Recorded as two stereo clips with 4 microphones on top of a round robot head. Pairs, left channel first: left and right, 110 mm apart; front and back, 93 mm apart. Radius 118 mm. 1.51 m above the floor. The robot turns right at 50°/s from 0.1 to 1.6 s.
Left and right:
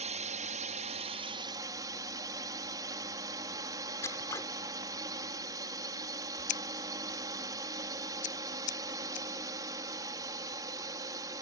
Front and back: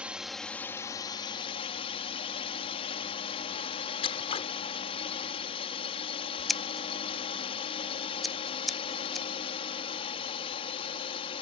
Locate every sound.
0.0 s a drone: 105° right; by 11.4 s 30° right
4.0 s scissors: 20° left
6.5 s scissors: 85° left